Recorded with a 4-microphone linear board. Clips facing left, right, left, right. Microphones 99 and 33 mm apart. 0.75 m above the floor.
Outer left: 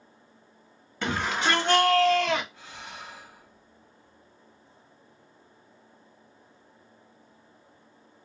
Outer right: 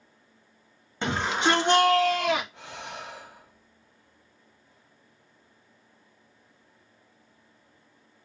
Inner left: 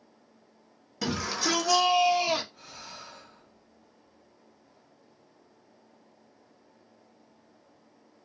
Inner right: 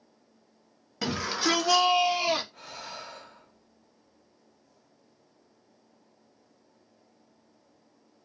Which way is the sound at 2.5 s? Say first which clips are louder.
Outer right 4 dB, inner right 4 dB; 70° right (ahead or behind).